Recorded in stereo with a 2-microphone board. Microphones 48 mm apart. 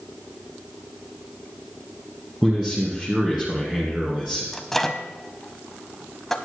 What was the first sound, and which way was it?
A man speaking, 10° right (ahead or behind).